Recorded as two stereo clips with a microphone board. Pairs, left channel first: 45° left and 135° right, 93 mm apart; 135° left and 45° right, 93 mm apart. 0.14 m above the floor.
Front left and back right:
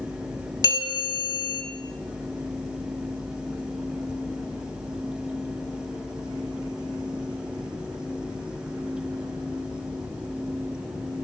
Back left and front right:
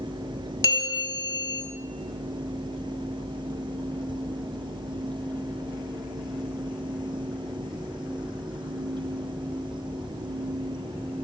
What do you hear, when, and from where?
0.6 s a bell: 85° left, 0.6 m